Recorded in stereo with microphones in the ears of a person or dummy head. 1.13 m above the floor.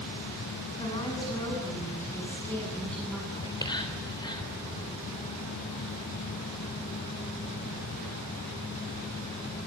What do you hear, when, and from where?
0.8 s a woman speaking: 25° left (ahead or behind), 9 m; by 3.2 s centre (ahead or behind), 8.5 m
3.3 s whispering: 20° left (ahead or behind), 3.5 m